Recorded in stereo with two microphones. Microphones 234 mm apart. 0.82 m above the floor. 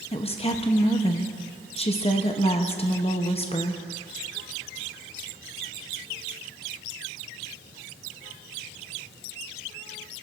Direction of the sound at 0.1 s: 25° left (ahead or behind).